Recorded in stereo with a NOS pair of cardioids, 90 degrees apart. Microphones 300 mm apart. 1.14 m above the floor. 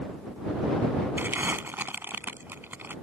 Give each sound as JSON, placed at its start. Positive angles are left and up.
{"t": 1.2, "sound": "crumpling", "azimuth_deg": -5}